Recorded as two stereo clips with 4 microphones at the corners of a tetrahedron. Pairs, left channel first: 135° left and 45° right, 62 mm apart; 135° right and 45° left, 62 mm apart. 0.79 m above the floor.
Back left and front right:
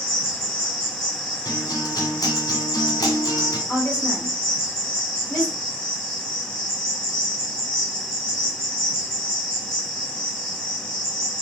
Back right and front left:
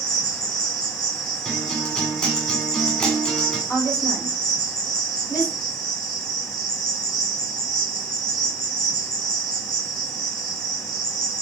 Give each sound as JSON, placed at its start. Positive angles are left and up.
{"t": 0.0, "sound": "an insect", "azimuth_deg": -145, "distance_m": 2.5}
{"t": 1.4, "sound": "a guitar", "azimuth_deg": 150, "distance_m": 1.8}
{"t": 3.7, "sound": "a woman speaking", "azimuth_deg": -155, "distance_m": 3.0}